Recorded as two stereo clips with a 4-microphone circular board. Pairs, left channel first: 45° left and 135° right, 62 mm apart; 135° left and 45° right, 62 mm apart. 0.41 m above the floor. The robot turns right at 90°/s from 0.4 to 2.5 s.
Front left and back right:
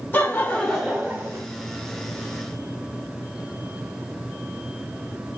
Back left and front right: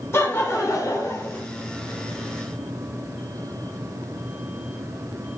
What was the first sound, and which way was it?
Laughter, 95° left.